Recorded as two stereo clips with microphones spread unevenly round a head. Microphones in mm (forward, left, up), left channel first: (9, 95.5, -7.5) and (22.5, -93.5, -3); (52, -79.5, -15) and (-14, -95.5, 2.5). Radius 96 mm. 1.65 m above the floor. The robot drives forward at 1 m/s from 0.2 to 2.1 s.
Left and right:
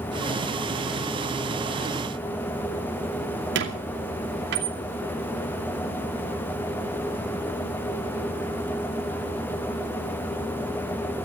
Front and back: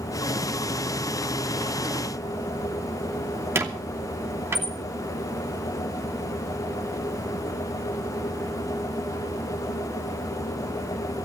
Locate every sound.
3.5 s a squeak: 120° right, 2.5 m